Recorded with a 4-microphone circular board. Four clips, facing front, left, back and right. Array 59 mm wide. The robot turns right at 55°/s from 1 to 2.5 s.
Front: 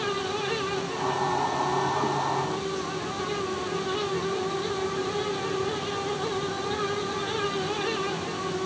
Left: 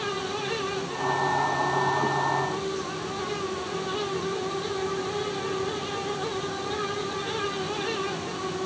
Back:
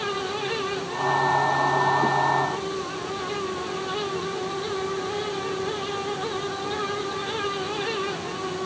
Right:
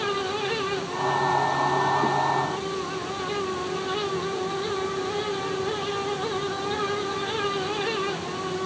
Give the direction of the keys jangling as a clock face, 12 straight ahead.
No keys jangling in this recording.